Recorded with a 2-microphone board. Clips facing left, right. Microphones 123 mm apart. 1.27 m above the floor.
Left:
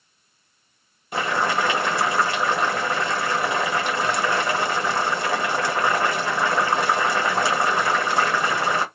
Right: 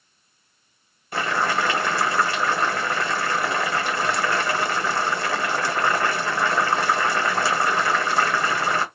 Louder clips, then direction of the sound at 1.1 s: Left 1 dB; 20° left (ahead or behind).